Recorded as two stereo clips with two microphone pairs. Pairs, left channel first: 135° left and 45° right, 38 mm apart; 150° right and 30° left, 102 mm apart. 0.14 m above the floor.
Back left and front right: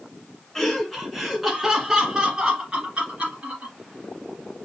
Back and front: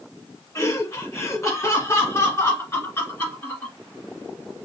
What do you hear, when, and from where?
0.6 s laughter: 155° right, 1.4 m; by 3.7 s 85° right, 2 m